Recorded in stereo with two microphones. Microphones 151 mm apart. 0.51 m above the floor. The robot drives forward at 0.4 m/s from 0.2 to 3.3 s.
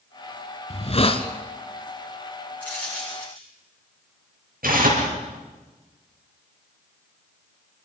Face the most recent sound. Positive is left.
turn(degrees=-70)  # may be behind; listen again after turning